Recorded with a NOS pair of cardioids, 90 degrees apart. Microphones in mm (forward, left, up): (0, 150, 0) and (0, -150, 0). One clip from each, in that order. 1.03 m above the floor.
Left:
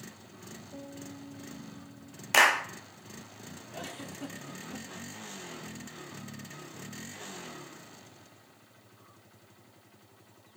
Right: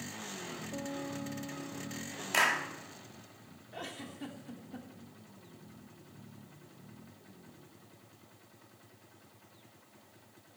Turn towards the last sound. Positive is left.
turn(degrees=0)